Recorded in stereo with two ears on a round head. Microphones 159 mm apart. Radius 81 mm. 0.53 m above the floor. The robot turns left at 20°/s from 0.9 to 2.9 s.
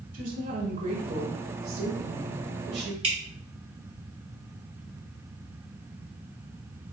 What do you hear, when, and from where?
0.1 s a woman speaking: 50° right, 1.7 m; by 2.9 s 90° right, 1.7 m
3.0 s dripping: 35° right (ahead or behind), 1.6 m